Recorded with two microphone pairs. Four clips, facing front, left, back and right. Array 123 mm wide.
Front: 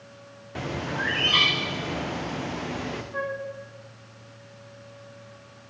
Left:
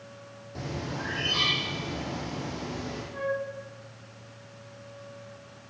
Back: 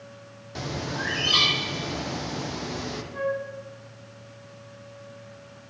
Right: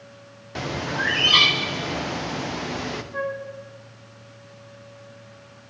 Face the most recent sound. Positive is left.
turn(degrees=-40)